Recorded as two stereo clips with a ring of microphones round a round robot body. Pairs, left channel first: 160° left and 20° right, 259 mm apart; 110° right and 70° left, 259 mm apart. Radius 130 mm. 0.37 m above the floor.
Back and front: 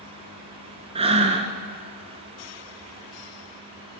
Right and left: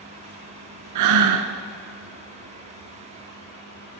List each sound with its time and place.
0.9 s breathing: 45° left, 0.9 m